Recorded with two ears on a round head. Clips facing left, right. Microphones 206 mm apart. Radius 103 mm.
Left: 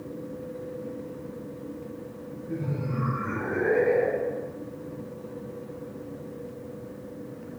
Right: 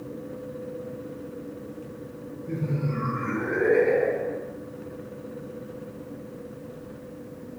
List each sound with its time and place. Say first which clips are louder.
2.5 s laughter: right 2 dB; 35° right (ahead or behind), 3 m